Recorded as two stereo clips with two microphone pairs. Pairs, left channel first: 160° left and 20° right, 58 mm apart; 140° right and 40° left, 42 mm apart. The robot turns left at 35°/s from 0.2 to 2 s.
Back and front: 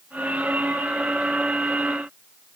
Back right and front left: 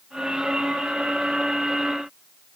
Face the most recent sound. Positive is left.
No sound to turn to.